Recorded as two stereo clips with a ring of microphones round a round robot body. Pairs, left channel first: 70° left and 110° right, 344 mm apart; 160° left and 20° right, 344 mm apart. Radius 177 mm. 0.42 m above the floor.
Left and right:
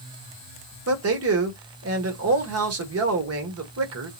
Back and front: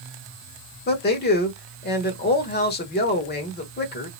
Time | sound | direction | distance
0.9 | a man speaking | 150° right | 1.3 m